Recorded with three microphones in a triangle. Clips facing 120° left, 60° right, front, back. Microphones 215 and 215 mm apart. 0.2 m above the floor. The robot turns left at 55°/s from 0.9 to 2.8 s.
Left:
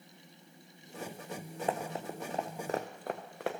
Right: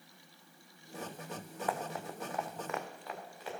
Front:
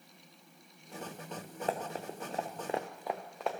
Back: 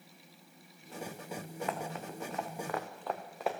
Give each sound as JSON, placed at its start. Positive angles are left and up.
{"t": 1.7, "sound": "running footsteps", "azimuth_deg": 55, "distance_m": 1.2}